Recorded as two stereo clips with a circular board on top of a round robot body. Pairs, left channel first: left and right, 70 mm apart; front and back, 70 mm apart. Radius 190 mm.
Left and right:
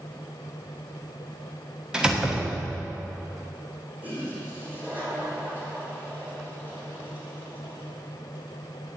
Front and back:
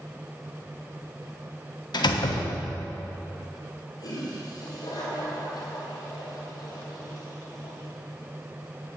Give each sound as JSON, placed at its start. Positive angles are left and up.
{"t": 1.9, "sound": "a door slam", "azimuth_deg": -10, "distance_m": 1.1}
{"t": 4.0, "sound": "a toilet flushing", "azimuth_deg": -25, "distance_m": 4.0}